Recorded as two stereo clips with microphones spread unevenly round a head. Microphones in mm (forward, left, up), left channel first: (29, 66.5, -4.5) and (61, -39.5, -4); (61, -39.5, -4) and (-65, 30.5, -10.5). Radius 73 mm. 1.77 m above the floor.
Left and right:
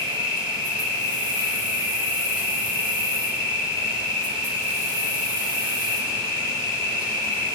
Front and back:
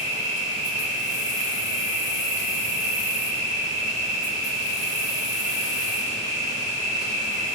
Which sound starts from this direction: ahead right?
An insect, at 0.0 s.